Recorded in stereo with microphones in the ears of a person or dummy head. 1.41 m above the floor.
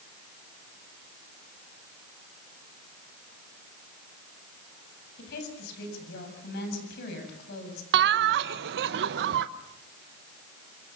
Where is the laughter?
70° right (ahead or behind), 0.9 m.